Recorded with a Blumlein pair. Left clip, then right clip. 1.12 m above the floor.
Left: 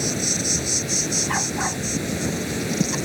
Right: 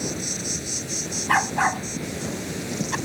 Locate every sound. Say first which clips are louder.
0.0 s an insect: left 5 dB; 15° left
1.3 s a dog barking: right 4 dB; 20° right